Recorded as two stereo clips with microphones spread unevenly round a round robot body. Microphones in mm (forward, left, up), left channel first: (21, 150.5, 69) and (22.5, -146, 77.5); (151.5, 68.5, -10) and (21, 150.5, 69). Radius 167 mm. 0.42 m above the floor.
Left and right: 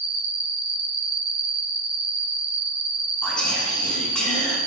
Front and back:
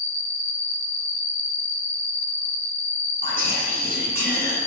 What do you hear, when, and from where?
0.0 s an insect: 5° right, 1.0 m
3.2 s whispering: 170° left, 0.8 m